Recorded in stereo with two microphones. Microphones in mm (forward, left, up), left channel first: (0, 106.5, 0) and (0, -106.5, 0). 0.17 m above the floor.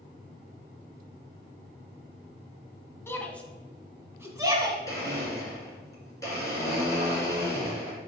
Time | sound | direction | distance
3.1 | a shout | 10° left (ahead or behind) | 1.0 m
4.9 | a blender | 15° left (ahead or behind) | 2.5 m